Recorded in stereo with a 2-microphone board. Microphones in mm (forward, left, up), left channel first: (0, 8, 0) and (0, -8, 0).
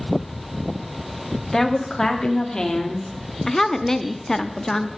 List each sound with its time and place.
1.5 s a woman speaking: 10° left (ahead or behind), 1.3 m; by 3.4 s 50° left (ahead or behind), 1.9 m
3.5 s a woman speaking: 25° left (ahead or behind), 0.7 m